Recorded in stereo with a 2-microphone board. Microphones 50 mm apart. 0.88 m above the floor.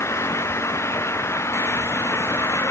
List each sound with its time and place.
0.0 s an engine running: 65° left (ahead or behind)